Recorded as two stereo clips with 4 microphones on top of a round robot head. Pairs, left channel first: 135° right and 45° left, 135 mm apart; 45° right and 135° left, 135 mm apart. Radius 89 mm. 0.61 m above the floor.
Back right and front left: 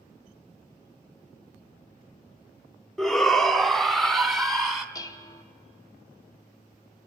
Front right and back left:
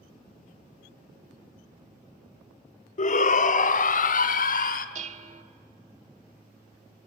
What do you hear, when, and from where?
3.0 s a shout: 50° right, 1.2 m; by 4.8 s 45° right, 2 m
5.0 s dishes clattering: 160° left, 1.1 m